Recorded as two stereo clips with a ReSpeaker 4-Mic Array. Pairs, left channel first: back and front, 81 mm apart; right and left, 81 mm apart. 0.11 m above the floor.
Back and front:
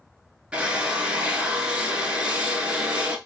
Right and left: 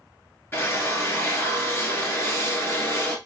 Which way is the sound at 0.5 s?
65° right.